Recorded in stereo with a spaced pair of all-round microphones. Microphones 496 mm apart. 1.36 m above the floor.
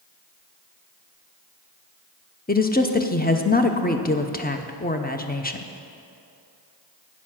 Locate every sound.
2.5 s a woman speaking: 20° left (ahead or behind), 0.6 m